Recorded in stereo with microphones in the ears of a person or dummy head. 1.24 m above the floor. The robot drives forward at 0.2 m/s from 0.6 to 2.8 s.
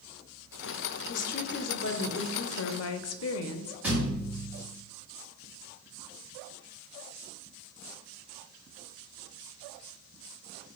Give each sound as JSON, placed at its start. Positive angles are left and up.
{"t": 1.1, "sound": "a woman speaking", "side_deg": 50, "distance_m": 0.6}
{"t": 3.8, "sound": "a thud", "side_deg": -10, "distance_m": 1.2}